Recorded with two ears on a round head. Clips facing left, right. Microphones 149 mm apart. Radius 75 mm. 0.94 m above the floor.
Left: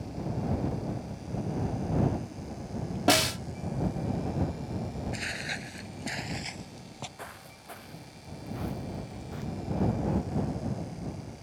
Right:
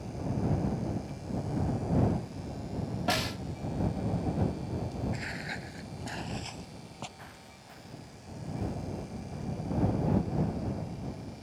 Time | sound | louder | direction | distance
3.1 | a snare drum | left 8 dB | 60° left (ahead or behind) | ?
5.1 | footsteps | left 1 dB | 35° left (ahead or behind) | ?
7.2 | footsteps | left 4 dB | 65° left (ahead or behind) | ?